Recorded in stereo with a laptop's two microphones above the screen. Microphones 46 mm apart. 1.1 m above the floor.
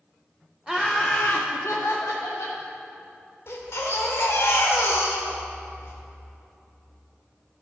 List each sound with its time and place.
0.7 s laughter: 15° right (ahead or behind), 0.7 m; by 2.6 s 80° left, 1.7 m
3.5 s a baby crying: 65° left (ahead or behind), 1.3 m